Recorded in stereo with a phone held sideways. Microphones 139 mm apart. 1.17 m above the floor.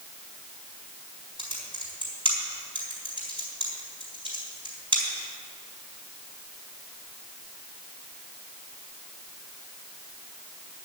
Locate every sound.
1.4 s typing on a keyboard: 40° right (ahead or behind), 4 m